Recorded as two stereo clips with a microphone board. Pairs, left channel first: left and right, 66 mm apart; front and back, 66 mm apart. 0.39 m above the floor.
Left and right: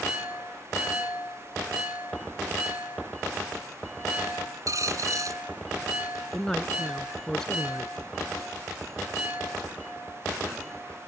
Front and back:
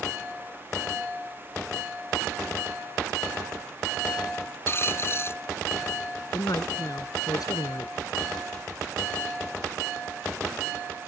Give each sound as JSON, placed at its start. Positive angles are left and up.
{"t": 4.7, "sound": "a dropped coin", "azimuth_deg": -55}
{"t": 6.3, "sound": "a man speaking", "azimuth_deg": 10}